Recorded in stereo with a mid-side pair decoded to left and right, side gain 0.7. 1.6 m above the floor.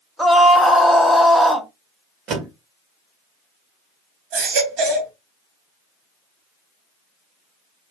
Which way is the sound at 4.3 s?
65° right.